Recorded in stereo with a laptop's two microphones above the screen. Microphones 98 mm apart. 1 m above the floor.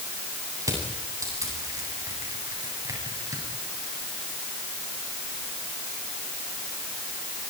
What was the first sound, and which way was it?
Crushing, 35° right (ahead or behind).